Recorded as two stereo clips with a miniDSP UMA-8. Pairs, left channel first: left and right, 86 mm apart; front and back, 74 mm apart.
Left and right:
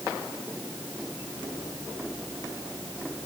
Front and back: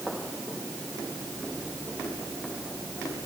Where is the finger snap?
I don't hear a finger snap.